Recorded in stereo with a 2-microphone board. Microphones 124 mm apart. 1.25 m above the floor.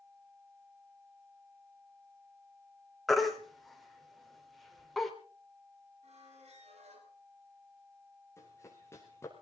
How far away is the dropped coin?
I don't hear a dropped coin.